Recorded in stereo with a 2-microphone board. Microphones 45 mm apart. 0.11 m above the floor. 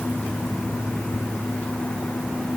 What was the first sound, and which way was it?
Only background noise.